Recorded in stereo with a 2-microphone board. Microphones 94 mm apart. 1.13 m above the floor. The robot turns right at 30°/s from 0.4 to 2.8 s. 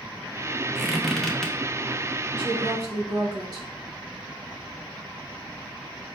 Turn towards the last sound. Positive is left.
turn(degrees=-45)  # may be behind; listen again after turning